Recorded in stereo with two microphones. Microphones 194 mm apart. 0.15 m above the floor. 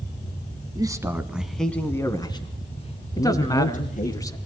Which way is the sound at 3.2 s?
20° left (ahead or behind).